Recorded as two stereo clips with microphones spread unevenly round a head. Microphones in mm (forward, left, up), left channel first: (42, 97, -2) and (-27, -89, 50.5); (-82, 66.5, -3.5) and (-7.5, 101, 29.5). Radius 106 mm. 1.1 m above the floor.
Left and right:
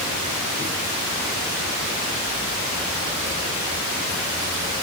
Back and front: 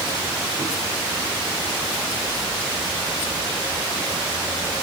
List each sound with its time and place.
Only background noise.